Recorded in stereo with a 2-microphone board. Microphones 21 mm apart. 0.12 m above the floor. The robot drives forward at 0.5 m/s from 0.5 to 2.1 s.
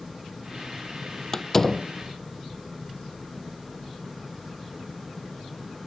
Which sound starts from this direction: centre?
A door slam, at 1.3 s.